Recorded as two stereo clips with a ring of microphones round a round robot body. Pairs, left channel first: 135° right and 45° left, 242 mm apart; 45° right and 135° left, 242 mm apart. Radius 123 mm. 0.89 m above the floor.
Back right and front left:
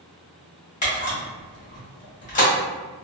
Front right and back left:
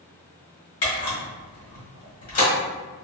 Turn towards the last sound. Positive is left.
turn(degrees=-75)